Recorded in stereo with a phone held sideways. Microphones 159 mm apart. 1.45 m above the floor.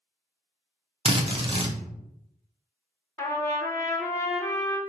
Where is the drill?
35° right (ahead or behind), 0.6 m.